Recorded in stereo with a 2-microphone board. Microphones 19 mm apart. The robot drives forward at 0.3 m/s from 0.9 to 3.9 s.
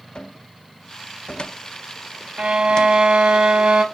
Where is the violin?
65° right (ahead or behind), 0.8 m; by 3.9 s 60° right (ahead or behind), 0.9 m.